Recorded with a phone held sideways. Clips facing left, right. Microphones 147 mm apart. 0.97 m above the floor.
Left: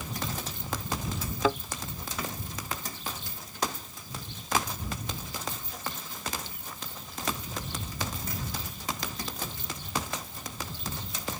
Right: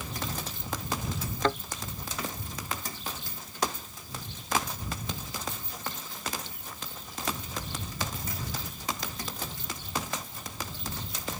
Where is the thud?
5° left (ahead or behind).